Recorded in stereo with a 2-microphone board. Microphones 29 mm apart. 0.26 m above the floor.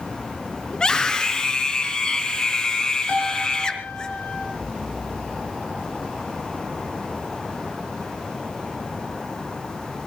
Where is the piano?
60° left (ahead or behind), 4.5 m.